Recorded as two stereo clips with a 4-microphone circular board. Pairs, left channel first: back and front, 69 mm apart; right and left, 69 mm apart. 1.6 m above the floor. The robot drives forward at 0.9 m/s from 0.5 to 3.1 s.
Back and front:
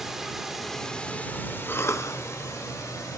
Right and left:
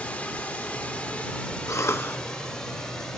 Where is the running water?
80° right, 1.3 m; by 3.2 s 170° right, 2.5 m.